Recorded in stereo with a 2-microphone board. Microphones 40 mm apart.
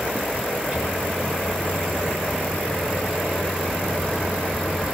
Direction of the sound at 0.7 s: 25° right (ahead or behind).